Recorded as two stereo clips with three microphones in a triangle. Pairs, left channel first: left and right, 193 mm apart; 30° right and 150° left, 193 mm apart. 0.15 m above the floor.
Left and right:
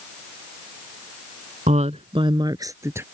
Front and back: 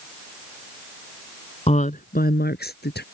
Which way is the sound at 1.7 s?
65° right.